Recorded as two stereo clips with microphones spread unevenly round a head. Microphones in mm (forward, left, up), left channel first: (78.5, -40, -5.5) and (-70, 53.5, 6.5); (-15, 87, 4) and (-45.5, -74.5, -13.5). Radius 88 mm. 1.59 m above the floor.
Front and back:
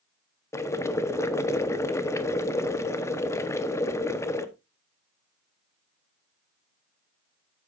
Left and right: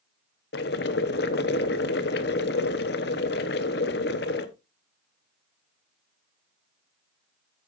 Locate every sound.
0.5 s boiling: 45° left, 1.0 m